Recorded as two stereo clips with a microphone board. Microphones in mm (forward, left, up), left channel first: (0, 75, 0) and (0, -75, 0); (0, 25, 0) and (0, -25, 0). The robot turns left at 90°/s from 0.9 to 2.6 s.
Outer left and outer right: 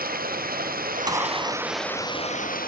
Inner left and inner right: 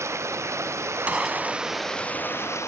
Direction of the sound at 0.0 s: 100° right.